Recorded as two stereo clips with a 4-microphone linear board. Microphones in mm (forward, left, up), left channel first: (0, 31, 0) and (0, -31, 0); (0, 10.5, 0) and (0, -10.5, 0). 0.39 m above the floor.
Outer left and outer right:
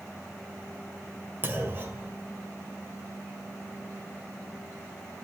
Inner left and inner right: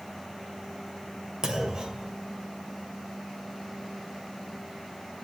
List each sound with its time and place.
1.4 s a clunk: 35° right (ahead or behind), 2 m